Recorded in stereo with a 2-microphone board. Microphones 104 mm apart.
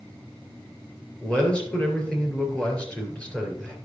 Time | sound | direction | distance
1.2 | a man speaking | 15° left (ahead or behind) | 3.5 m